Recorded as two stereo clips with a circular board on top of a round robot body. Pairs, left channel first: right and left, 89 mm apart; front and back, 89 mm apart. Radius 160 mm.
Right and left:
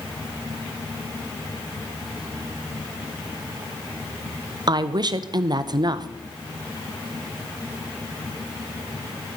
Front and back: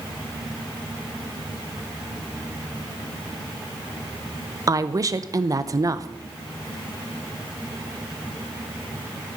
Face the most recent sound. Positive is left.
turn(degrees=130)